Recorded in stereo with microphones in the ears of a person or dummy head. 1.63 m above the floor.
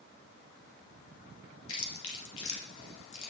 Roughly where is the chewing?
Left.